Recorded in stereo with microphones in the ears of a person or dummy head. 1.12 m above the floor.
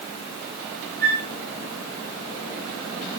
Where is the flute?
45° right (ahead or behind), 2 m.